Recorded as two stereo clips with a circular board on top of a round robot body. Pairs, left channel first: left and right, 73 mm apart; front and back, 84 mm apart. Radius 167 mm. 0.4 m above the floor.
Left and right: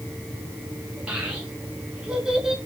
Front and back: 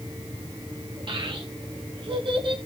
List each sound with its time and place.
1.1 s a child speaking: 160° right, 7 m; by 2.5 s 170° right, 6 m